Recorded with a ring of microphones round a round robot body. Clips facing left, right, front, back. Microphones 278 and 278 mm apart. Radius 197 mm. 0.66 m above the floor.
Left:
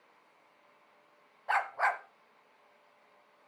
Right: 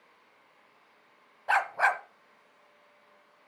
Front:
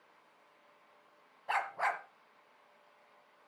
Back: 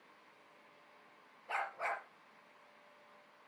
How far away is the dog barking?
About 1.1 m.